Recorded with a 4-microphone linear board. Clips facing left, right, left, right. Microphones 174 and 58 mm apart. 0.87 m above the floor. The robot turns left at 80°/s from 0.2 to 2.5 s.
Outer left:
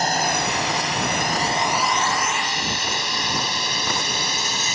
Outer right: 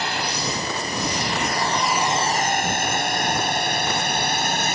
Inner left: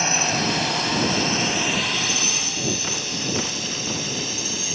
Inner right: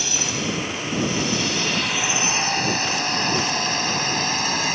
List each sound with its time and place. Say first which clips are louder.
0.0 s a drone: outer left 4 dB, inner left 4 dB; 40° left (ahead or behind); by 4.8 s 55° right (ahead or behind)